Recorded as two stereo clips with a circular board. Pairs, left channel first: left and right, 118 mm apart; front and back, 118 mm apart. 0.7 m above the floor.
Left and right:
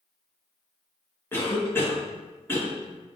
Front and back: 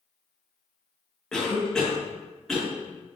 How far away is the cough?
About 0.9 m.